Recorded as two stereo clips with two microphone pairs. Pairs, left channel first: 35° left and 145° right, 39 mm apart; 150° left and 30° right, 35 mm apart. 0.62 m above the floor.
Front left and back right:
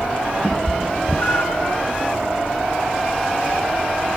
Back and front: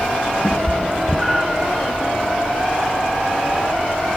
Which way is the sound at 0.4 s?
110° left.